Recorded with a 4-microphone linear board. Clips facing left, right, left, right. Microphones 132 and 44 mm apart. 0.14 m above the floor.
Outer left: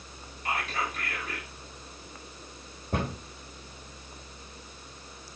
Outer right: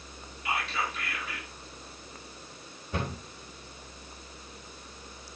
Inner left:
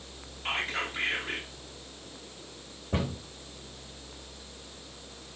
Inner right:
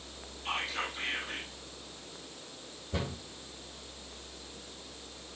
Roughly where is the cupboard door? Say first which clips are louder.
Outer left 3 dB, inner left 5 dB; left.